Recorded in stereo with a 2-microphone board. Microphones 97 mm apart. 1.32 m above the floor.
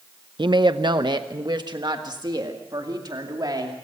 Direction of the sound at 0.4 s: 55° right (ahead or behind).